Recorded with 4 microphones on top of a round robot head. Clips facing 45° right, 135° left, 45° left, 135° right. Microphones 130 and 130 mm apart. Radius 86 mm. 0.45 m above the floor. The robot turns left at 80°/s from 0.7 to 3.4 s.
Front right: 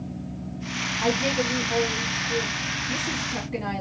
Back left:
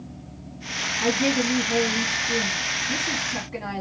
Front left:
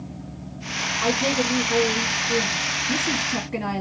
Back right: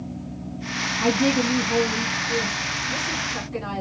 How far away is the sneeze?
I don't hear a sneeze.